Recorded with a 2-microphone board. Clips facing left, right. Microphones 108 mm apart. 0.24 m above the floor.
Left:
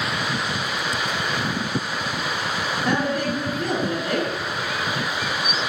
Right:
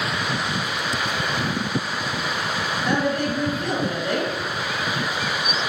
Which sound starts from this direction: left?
A woman speaking, at 2.9 s.